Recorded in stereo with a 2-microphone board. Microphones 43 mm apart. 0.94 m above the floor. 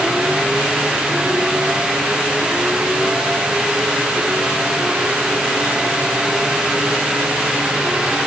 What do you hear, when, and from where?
Only background noise.